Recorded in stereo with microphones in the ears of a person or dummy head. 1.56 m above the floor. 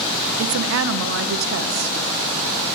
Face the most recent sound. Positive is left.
turn(degrees=-70)  # may be behind; listen again after turning